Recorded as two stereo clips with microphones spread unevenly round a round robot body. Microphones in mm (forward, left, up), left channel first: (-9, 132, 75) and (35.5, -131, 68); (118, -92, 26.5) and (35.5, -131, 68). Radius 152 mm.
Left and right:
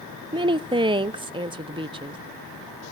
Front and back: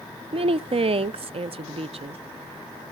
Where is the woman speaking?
140° right, 0.6 m.